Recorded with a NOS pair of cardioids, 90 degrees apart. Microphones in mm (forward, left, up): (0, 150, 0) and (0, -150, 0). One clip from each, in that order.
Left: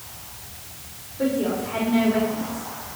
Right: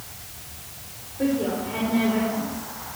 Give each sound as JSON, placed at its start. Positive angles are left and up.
{"t": 1.2, "sound": "a woman speaking", "azimuth_deg": 10, "distance_m": 5.5}